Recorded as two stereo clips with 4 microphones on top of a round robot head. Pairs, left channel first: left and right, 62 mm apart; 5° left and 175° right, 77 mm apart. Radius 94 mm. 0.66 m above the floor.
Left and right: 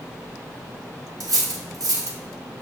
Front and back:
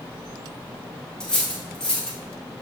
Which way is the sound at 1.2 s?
75° right.